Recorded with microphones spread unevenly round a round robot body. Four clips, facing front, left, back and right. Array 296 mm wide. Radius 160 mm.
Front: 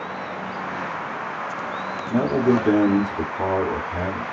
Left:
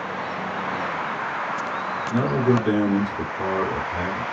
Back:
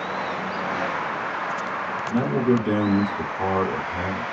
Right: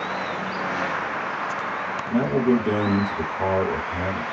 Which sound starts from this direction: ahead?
A man speaking, at 2.1 s.